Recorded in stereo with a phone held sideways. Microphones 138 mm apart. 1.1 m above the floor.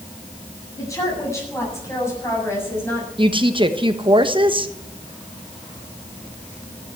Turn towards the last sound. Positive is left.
turn(degrees=-35)  # may be behind; listen again after turning